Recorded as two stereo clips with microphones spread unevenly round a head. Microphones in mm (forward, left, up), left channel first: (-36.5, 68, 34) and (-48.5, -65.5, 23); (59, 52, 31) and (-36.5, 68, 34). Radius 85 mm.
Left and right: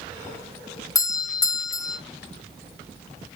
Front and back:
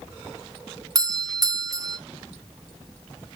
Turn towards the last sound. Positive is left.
turn(degrees=145)